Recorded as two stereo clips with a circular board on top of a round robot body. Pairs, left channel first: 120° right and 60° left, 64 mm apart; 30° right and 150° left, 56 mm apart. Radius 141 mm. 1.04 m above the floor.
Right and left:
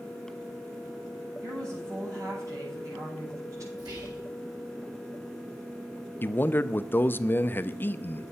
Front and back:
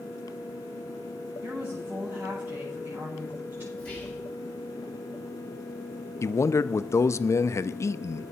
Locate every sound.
1.4 s a woman speaking: 95° left, 7.5 m
3.8 s whispering: 40° left, 5 m
6.2 s a man speaking: 65° right, 0.6 m